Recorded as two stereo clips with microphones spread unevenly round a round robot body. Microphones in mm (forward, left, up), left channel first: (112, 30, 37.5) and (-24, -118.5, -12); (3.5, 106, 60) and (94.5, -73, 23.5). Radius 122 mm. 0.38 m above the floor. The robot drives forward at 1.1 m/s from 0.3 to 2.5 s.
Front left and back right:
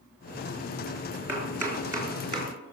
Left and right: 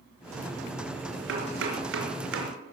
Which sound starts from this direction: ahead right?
Chopping, at 1.3 s.